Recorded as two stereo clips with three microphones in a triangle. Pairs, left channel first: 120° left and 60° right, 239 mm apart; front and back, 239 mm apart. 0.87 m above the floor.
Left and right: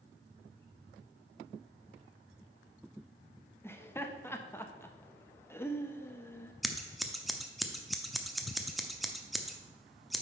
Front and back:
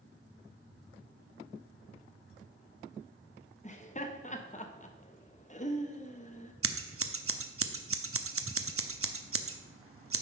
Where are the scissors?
150° right, 0.6 m.